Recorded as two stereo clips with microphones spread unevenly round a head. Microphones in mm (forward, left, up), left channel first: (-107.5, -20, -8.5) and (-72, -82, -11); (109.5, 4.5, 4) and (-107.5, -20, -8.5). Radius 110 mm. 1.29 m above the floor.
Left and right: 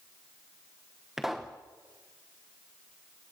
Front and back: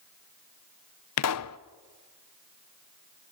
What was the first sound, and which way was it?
A pop, 30° left.